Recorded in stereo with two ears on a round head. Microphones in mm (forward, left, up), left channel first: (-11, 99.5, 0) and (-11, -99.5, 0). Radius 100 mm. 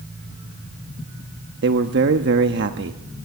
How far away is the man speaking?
About 1.2 m.